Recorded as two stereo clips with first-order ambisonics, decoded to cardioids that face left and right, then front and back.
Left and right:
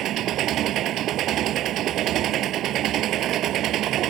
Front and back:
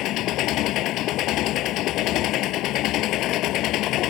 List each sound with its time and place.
0.0 s an engine running: 40° right